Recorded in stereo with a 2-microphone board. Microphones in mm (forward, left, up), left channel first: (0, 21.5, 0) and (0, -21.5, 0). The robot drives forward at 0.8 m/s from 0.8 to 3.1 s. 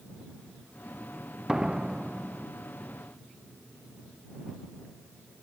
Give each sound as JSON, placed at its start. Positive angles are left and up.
{"t": 1.5, "sound": "a door slam", "side_deg": -15}